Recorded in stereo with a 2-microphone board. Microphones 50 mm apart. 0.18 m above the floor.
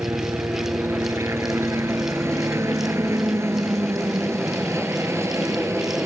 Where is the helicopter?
65° right (ahead or behind).